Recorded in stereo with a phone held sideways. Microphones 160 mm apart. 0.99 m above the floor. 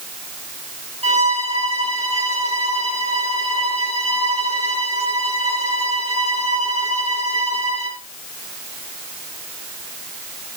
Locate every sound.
1.0 s a violin: 40° right (ahead or behind), 5.5 m